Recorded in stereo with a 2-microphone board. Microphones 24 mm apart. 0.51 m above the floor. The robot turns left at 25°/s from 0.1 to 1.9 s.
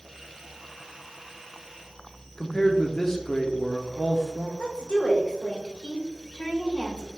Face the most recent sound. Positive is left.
turn(degrees=65)  # may be behind; listen again after turning